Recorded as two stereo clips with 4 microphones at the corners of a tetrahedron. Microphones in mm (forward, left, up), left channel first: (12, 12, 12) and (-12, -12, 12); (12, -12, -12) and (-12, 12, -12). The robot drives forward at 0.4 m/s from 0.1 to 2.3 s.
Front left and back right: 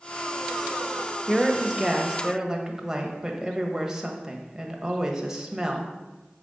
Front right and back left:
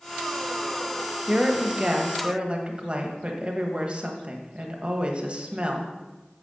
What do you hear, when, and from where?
1.3 s a woman speaking: 130° left, 1.1 m; by 5.9 s 155° left, 1.3 m